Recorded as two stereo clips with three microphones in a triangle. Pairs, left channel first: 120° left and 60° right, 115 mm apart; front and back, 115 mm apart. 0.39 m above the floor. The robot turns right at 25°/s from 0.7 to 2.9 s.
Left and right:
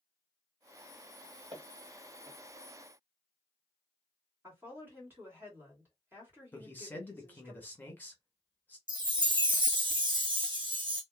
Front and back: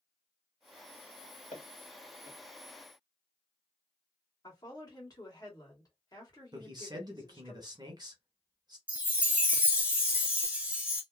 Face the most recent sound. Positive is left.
turn(degrees=-105)